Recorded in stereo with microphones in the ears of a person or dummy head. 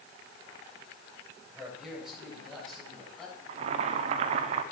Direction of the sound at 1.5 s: 5° right (ahead or behind).